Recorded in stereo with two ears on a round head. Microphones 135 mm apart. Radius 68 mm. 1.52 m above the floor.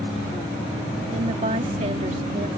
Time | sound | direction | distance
1.1 | a woman speaking | 45° right (ahead or behind) | ?